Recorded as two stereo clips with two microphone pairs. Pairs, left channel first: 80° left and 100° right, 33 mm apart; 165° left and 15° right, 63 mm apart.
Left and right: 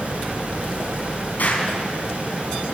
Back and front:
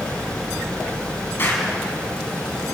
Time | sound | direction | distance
1.4 | an explosion | 115° left | 5 m